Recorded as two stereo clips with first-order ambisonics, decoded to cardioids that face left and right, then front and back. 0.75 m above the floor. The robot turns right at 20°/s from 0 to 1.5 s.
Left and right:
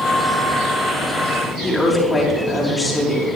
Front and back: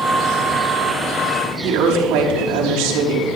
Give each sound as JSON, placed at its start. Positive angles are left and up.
{"t": 1.6, "sound": "a woman speaking", "azimuth_deg": 170, "distance_m": 5.0}